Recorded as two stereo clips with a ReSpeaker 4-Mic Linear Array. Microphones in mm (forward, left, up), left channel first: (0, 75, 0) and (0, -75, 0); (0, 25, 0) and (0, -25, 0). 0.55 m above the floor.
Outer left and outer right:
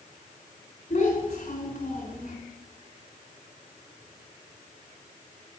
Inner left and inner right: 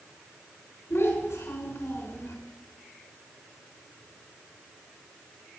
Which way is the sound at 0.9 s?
55° left (ahead or behind).